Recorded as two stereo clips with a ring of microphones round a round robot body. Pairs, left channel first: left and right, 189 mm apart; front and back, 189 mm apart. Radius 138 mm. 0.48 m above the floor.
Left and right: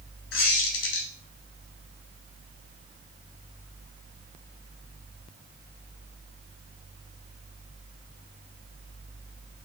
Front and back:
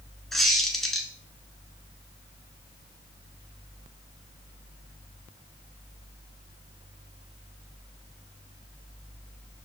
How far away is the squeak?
About 0.7 m.